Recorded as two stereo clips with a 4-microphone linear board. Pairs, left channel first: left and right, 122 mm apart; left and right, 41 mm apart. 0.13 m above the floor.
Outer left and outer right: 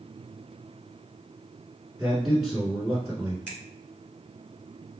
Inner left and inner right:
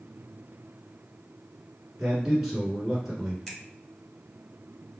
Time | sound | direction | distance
2.0 | a man speaking | centre (ahead or behind) | 1.4 m
3.5 | a finger snap | 10° left (ahead or behind) | 1.0 m